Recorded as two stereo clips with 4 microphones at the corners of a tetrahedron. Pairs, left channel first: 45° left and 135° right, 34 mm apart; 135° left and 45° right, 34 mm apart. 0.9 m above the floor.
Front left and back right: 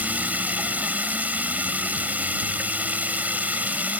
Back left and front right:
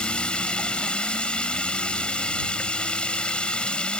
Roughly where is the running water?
Behind.